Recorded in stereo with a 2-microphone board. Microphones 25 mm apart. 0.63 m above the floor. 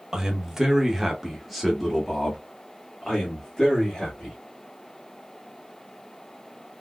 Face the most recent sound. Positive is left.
turn(degrees=20)  # may be behind; listen again after turning